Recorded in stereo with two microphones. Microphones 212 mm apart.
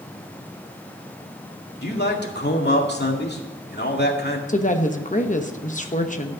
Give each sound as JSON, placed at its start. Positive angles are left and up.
{"t": 1.8, "sound": "a man speaking", "side_deg": 50, "distance_m": 2.0}
{"t": 4.5, "sound": "a woman speaking", "side_deg": 35, "distance_m": 1.0}